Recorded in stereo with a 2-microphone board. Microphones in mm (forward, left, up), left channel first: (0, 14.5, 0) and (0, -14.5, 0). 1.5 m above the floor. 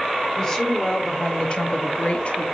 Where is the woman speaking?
20° left (ahead or behind), 1.1 m; by 2.5 s 40° left (ahead or behind), 0.5 m.